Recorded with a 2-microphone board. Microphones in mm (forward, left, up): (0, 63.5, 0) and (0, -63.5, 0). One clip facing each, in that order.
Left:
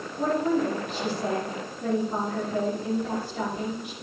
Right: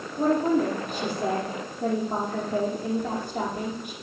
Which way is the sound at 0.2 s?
45° right (ahead or behind).